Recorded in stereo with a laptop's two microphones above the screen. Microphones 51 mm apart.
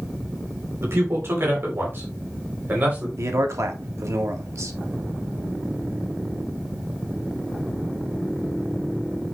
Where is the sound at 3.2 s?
65° right (ahead or behind), 1.7 m.